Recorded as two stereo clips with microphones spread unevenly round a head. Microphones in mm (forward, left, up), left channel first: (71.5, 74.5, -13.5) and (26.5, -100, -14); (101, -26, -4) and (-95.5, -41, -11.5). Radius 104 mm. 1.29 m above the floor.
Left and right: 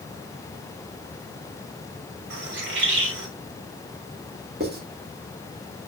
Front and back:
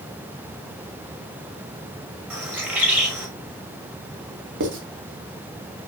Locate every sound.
2.3 s a bird: 95° right, 5 m
4.6 s writing: 155° right, 3 m